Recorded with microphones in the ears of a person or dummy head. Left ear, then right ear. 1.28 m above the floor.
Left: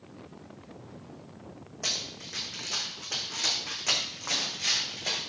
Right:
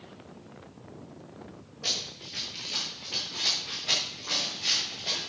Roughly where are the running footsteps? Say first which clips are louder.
Right 1 dB; left.